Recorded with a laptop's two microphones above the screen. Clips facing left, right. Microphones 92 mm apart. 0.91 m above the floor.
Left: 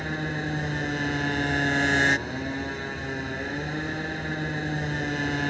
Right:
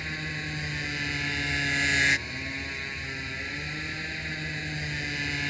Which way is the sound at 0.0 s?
35° left (ahead or behind).